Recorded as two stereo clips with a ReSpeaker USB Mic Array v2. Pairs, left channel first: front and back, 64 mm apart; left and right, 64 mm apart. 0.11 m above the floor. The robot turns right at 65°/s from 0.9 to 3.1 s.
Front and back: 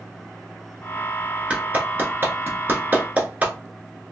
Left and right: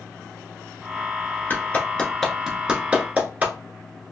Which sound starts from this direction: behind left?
A clap, at 1.5 s.